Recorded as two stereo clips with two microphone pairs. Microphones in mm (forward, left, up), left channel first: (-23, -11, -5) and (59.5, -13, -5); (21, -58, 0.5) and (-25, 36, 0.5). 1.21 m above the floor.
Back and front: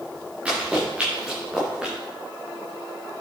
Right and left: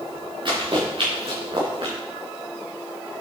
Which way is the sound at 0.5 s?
75° left.